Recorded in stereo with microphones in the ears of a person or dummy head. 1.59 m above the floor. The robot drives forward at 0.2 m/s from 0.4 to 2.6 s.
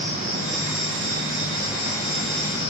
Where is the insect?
40° right (ahead or behind), 1.0 m; by 2.7 s 30° right (ahead or behind), 1.4 m.